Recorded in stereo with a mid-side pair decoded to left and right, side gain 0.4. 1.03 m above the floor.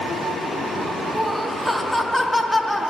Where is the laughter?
5° left, 1.2 m.